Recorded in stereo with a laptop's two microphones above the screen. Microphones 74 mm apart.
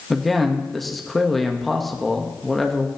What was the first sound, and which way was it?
A man speaking, centre (ahead or behind).